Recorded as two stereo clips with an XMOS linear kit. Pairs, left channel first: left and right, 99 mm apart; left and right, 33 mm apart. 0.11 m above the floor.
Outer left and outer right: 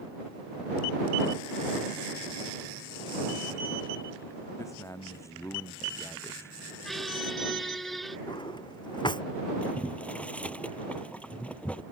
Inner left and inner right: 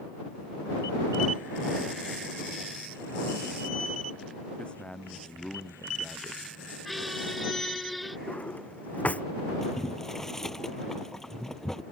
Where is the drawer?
50° left (ahead or behind).